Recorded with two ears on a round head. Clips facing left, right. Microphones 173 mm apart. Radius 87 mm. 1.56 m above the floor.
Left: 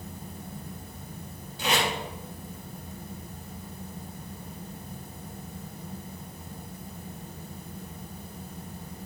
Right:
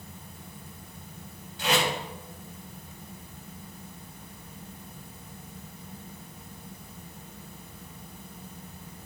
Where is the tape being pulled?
85° left, 3 m.